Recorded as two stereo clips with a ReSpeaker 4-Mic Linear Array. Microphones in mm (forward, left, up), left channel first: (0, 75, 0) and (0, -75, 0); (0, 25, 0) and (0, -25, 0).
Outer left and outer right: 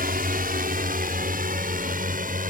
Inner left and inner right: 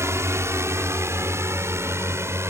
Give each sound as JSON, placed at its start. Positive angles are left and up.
{"t": 0.0, "sound": "a drone", "side_deg": -65}